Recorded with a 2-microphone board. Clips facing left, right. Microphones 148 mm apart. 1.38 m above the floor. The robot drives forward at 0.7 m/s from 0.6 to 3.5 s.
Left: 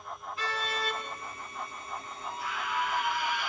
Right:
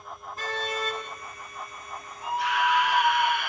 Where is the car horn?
45° right (ahead or behind), 7 m.